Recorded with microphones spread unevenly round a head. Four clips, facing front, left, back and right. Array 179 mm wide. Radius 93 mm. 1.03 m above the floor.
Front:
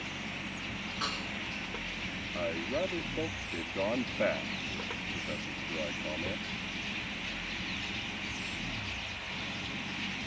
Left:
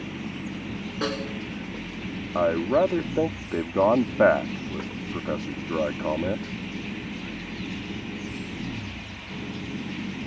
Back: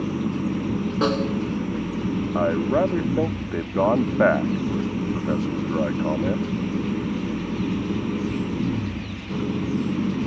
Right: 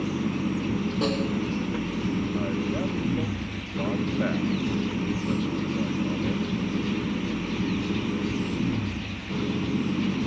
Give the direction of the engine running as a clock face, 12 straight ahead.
5 o'clock.